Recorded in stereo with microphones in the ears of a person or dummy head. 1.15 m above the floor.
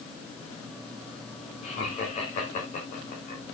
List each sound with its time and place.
1.6 s laughter: 40° left (ahead or behind), 4.5 m; by 3.4 s 50° left (ahead or behind), 4 m